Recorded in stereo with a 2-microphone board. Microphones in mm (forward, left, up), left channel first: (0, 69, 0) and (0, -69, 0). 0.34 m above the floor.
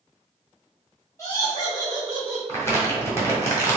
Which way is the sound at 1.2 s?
25° left (ahead or behind).